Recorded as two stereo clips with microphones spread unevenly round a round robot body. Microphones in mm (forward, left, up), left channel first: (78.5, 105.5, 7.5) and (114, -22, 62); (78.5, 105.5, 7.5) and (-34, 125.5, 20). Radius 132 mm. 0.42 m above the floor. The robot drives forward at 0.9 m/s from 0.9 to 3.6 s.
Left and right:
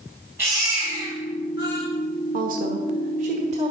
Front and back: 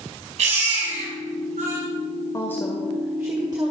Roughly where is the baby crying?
Behind.